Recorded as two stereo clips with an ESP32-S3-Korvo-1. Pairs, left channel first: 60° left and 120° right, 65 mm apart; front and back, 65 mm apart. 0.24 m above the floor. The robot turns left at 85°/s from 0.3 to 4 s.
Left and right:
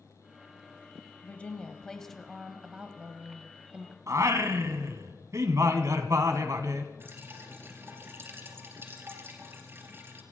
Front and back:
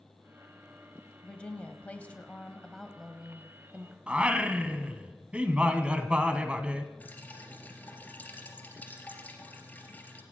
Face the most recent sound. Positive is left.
turn(degrees=-65)